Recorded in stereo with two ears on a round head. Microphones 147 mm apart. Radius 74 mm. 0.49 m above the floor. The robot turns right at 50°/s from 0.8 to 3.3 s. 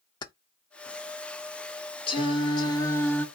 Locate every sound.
0.2 s keys jangling: 30° left (ahead or behind), 0.5 m
2.1 s singing: 95° left, 1.2 m; by 3.2 s 155° left, 1.2 m